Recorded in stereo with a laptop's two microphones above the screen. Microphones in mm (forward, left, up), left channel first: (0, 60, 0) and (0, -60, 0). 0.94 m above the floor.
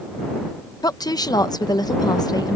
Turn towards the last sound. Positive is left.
turn(degrees=35)  # may be behind; listen again after turning